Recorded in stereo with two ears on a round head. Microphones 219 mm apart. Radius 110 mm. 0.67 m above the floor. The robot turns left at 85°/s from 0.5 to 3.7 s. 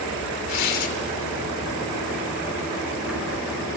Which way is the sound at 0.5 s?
95° left.